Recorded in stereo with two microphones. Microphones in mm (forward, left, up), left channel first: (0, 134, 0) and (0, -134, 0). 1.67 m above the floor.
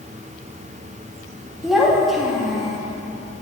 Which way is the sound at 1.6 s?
Centre (ahead or behind).